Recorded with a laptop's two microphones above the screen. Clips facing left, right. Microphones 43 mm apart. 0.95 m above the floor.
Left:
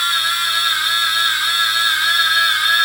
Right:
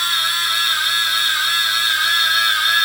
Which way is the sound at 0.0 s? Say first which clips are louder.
Left 1 dB; centre (ahead or behind).